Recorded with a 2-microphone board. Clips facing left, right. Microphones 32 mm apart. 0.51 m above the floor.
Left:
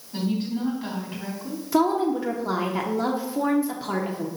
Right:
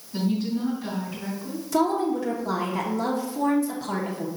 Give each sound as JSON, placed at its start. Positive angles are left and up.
{"t": 0.1, "sound": "a woman speaking", "side_deg": 40, "distance_m": 3.5}
{"t": 1.7, "sound": "a woman speaking", "side_deg": 20, "distance_m": 0.8}